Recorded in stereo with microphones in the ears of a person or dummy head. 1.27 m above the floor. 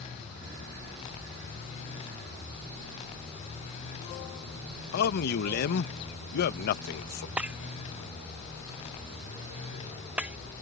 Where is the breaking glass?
5° right (ahead or behind).